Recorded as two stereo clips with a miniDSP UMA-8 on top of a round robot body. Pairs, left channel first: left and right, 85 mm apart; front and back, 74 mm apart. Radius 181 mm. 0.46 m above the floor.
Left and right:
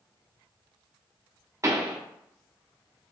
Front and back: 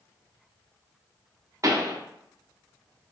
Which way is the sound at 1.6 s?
140° right.